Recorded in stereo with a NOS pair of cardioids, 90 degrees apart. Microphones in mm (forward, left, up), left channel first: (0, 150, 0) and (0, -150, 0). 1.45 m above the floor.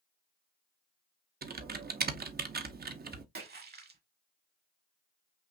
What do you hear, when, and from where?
1.4 s typing on a keyboard: 30° right, 0.8 m
3.4 s a splash: 35° right, 1.4 m